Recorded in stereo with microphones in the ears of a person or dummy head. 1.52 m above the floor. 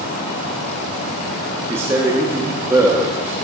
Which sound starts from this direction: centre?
A man speaking, at 1.7 s.